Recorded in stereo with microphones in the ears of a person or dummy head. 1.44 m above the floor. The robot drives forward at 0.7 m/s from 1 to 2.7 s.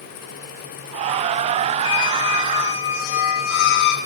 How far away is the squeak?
About 1.3 m.